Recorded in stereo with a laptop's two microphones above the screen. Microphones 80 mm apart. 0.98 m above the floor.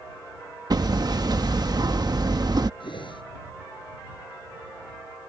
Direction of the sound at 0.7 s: 50° right (ahead or behind).